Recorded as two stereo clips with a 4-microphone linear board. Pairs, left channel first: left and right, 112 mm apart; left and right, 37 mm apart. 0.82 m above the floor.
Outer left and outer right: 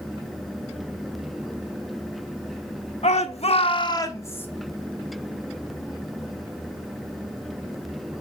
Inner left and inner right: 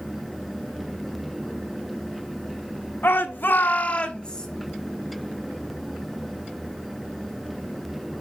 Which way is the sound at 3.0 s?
70° left (ahead or behind).